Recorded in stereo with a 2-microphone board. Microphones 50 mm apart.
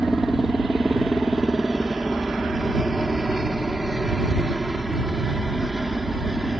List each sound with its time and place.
0.0 s a helicopter: centre (ahead or behind)